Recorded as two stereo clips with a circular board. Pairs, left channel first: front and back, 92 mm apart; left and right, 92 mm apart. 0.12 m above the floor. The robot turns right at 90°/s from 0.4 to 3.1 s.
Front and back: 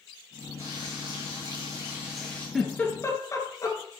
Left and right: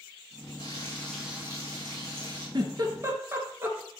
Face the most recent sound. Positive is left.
turn(degrees=-40)